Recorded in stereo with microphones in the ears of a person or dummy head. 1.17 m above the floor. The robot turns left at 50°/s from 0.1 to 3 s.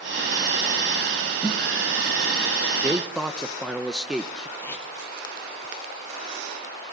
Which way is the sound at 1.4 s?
5° right (ahead or behind).